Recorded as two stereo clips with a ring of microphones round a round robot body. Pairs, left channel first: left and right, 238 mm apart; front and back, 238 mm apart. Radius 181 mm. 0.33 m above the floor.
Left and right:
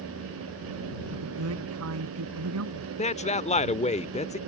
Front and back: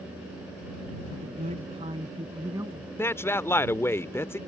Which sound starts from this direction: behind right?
A man speaking, at 1.1 s.